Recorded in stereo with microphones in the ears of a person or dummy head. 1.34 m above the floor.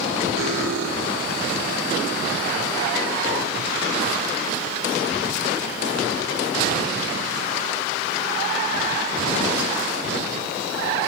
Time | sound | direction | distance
0.4 | cutlery clinking | 75° right (ahead or behind) | 3 m